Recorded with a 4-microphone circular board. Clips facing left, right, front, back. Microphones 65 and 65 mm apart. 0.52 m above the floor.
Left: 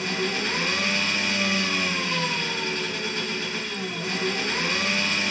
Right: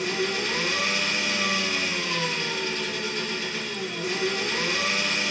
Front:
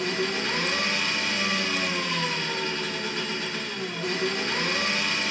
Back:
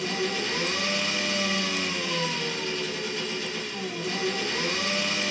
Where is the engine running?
30° left, 2.5 m.